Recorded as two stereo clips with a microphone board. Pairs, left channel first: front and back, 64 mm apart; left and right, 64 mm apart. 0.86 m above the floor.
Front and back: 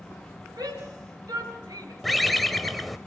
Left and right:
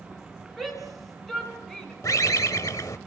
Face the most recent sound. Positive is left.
turn(degrees=90)